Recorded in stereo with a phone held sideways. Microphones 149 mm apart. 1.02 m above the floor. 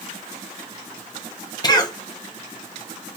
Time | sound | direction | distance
1.6 | a cough | 25° left (ahead or behind) | 0.6 m